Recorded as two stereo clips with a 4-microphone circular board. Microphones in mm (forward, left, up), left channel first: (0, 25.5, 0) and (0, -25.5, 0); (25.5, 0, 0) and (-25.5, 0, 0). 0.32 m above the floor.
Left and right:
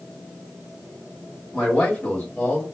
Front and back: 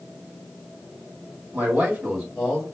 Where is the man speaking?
140° left, 1.4 m; by 2.6 s 75° left, 1.4 m.